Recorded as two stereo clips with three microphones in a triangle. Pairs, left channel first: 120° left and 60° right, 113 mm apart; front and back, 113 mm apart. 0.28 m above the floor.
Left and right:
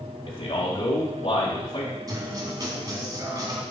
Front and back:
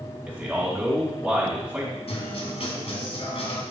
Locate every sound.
0.3 s a man speaking: 105° left, 2.5 m
2.1 s a guitar: 10° right, 1.3 m